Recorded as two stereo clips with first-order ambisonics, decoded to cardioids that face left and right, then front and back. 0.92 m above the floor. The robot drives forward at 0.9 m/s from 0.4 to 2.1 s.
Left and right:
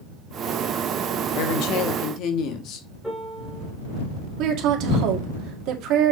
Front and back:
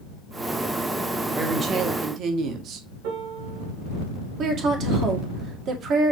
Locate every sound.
1.4 s a woman speaking: 100° left, 1.2 m; by 2.9 s 130° left, 1.5 m
3.0 s a piano: 175° left, 4 m
4.4 s a woman speaking: 125° right, 2 m